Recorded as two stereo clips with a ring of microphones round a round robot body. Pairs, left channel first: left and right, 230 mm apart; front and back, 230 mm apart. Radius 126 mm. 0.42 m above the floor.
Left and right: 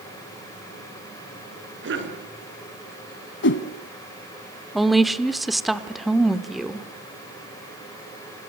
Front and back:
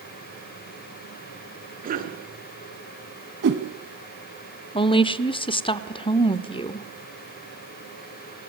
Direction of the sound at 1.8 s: 125° right.